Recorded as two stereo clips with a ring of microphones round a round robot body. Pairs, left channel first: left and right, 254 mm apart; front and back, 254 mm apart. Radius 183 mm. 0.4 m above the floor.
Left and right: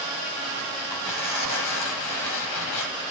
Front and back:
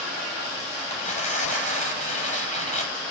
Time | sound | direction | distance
0.9 | tearing paper | 60° left | 9.5 m